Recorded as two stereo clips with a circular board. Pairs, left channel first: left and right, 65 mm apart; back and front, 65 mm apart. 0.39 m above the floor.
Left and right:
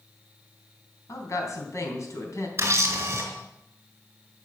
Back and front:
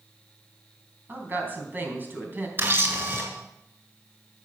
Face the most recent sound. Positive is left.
turn(degrees=-45)